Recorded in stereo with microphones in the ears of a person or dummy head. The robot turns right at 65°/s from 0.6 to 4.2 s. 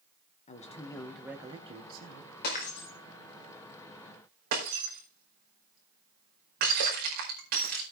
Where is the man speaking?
135° left, 1.9 m; by 2.3 s 115° right, 1.9 m.